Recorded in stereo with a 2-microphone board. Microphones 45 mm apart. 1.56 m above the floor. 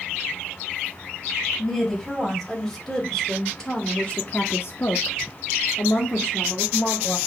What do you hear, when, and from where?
1.6 s a woman speaking: 5° right (ahead or behind), 2.5 m; by 7.2 s 35° left (ahead or behind), 1.7 m